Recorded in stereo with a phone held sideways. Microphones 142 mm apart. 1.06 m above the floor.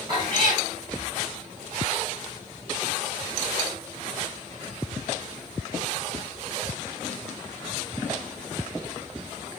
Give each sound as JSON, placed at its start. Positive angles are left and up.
{"t": 0.1, "sound": "a cat meowing", "side_deg": -35, "distance_m": 2.5}